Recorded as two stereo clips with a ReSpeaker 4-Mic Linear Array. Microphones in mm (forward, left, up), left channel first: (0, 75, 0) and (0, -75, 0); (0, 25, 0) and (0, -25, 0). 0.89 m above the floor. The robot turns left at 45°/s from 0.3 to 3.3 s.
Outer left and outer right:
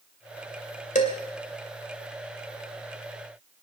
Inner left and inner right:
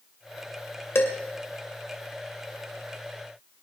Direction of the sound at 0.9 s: 55° left (ahead or behind).